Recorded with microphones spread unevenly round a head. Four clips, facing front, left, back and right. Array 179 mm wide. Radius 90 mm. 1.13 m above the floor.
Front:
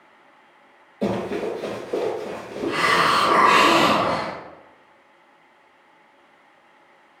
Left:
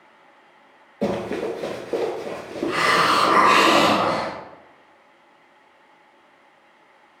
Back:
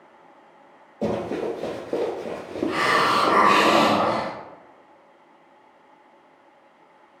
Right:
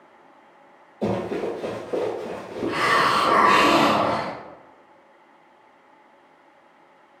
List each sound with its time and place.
1.0 s running footsteps: 100° left, 1.2 m; by 3.7 s straight behind, 1.8 m
2.7 s a hiss: 140° left, 1.3 m